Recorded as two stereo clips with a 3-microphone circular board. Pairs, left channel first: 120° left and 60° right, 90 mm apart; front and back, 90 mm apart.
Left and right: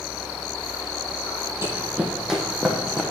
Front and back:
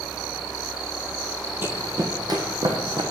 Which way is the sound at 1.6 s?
115° right.